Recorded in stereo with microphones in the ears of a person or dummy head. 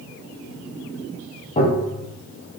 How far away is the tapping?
About 0.9 m.